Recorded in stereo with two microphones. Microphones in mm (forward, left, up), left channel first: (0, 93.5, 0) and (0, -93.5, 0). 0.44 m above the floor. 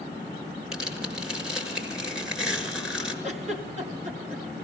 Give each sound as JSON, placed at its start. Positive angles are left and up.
{"t": 0.7, "sound": "tearing paper", "side_deg": -5, "distance_m": 6.0}
{"t": 3.2, "sound": "a giggle", "side_deg": -40, "distance_m": 3.0}